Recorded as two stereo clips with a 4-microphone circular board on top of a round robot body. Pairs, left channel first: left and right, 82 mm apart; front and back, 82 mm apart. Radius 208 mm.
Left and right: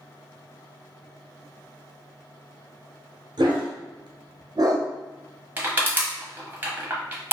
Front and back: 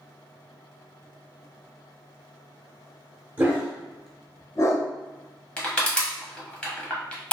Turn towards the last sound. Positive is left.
turn(degrees=-60)